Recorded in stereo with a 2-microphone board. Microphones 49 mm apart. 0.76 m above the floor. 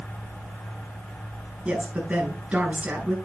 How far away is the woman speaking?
About 10 m.